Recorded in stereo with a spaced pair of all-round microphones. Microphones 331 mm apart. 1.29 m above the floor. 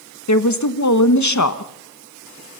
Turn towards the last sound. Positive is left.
turn(degrees=55)  # may be behind; listen again after turning